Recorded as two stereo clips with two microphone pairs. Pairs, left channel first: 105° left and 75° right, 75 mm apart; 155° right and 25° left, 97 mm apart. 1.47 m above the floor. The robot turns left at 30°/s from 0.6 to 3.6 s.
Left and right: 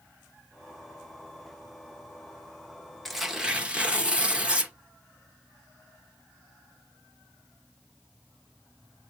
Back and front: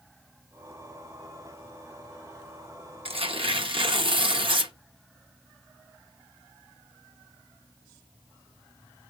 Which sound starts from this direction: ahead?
Tearing paper, at 3.0 s.